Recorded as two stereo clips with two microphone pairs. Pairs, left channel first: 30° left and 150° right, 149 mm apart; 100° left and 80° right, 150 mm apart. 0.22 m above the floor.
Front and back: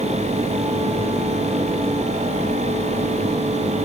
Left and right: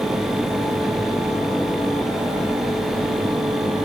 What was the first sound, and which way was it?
Only background noise.